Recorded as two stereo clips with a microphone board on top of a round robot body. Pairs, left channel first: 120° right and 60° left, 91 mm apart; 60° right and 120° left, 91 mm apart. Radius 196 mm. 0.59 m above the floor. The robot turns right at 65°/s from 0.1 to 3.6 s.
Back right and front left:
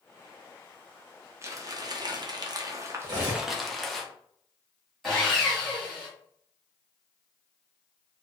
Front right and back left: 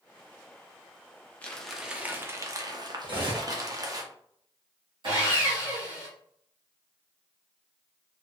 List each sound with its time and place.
1.4 s crumpling: 10° left, 0.8 m; by 4.0 s 155° left, 0.8 m
3.0 s cutlery clinking: 100° left, 1.4 m; by 3.5 s 130° left, 1.4 m
5.0 s sawing: 155° left, 1.1 m